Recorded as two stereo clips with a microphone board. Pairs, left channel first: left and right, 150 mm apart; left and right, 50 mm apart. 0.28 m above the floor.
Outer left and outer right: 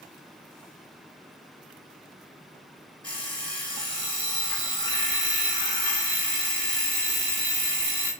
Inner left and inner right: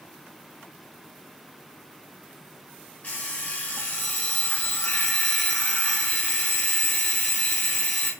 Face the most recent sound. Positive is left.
turn(degrees=35)  # may be behind; listen again after turning